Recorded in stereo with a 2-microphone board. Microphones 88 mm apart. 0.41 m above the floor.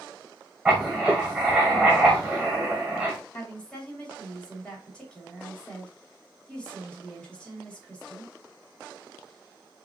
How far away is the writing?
About 2 m.